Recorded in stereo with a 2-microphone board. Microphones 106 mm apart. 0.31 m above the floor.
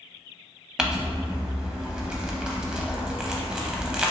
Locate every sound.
0.8 s crumpling: 10° right (ahead or behind), 0.5 m